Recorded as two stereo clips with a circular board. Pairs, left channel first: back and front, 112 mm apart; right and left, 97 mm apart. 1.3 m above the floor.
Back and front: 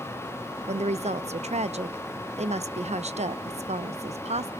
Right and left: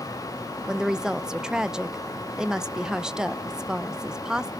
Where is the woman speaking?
5° left, 0.6 m.